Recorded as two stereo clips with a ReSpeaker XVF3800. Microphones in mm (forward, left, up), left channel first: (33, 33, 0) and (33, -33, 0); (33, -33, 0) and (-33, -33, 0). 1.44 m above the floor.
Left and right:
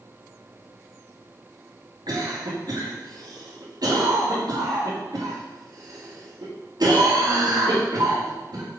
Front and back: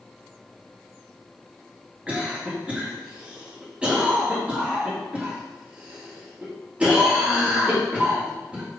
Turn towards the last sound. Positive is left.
turn(degrees=-105)